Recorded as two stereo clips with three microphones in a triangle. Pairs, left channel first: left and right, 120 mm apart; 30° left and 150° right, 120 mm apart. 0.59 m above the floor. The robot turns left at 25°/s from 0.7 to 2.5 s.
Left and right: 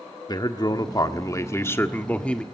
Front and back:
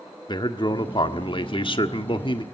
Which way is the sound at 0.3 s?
55° left.